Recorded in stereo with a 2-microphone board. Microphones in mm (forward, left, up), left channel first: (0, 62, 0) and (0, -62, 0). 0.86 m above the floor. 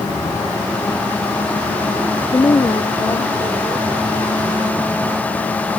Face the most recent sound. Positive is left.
turn(degrees=45)  # may be behind; listen again after turning